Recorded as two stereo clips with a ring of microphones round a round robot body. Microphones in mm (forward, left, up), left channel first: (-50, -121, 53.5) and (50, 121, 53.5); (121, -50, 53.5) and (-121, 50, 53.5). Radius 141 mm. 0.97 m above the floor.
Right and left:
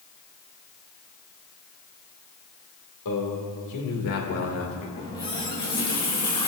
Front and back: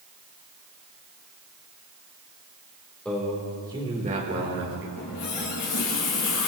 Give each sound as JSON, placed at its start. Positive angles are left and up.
{"t": 3.0, "sound": "a man speaking", "azimuth_deg": -110, "distance_m": 3.0}
{"t": 5.0, "sound": "a running tap", "azimuth_deg": -40, "distance_m": 4.0}